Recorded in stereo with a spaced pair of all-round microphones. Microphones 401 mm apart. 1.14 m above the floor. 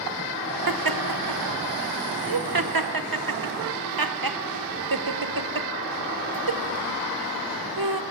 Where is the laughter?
60° right (ahead or behind), 0.7 m.